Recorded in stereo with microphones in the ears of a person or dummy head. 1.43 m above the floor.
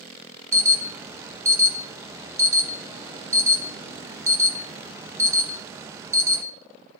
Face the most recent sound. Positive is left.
turn(degrees=-10)  # may be behind; listen again after turning